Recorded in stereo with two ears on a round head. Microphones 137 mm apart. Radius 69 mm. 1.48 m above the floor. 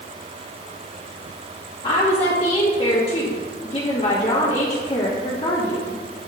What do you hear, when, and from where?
1.8 s a woman speaking: 30° left (ahead or behind), 2.5 m